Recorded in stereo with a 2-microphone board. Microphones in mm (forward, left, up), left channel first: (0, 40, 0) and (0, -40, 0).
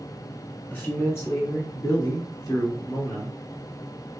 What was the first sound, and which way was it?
A man speaking, 25° left (ahead or behind).